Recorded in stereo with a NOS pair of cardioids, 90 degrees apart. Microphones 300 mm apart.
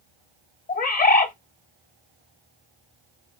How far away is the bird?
About 0.6 m.